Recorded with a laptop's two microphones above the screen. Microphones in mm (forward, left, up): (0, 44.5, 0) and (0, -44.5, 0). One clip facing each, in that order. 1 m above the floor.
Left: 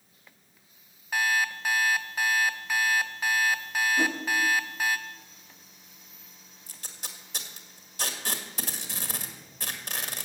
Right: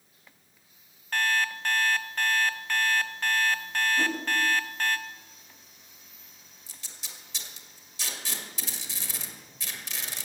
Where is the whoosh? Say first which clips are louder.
Left 1 dB; 15° left (ahead or behind), 1.6 m.